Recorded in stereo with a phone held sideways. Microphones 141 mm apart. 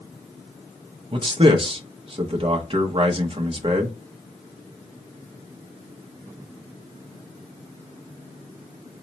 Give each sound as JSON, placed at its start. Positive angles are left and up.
{"t": 1.1, "sound": "a man speaking", "side_deg": -40, "distance_m": 0.7}